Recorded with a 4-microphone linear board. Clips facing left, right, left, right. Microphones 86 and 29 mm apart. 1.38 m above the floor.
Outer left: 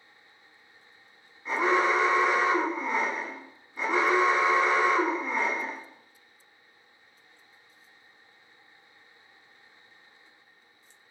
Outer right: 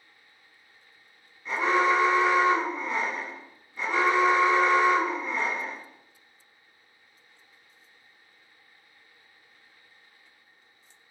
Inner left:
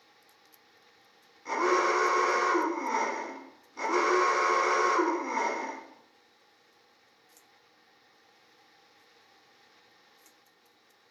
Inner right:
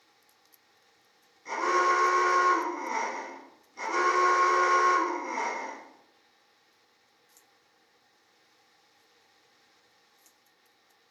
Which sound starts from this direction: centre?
An alarm, at 1.4 s.